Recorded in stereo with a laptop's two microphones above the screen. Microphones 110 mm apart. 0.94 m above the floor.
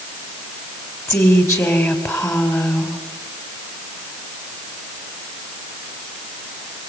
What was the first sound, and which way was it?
A woman speaking, 25° left (ahead or behind).